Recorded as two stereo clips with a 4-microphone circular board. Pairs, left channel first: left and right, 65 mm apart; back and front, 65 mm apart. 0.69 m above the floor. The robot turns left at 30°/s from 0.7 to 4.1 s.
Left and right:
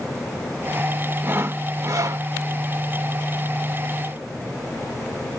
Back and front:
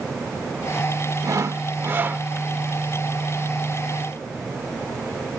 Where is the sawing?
35° right; by 2.2 s 65° right.